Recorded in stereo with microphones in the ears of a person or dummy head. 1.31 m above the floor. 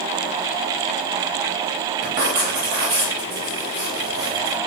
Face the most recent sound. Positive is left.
turn(degrees=-40)  # may be behind; listen again after turning